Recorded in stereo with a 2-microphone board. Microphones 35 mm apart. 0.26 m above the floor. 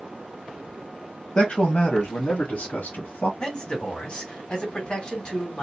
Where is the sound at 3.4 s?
35° left (ahead or behind), 1.9 m.